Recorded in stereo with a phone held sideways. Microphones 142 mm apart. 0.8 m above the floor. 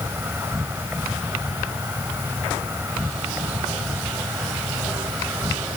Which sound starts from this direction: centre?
An insect, at 0.0 s.